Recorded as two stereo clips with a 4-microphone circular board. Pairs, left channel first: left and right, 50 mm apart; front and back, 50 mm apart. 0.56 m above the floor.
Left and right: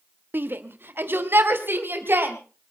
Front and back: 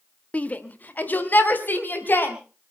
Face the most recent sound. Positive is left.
turn(degrees=-50)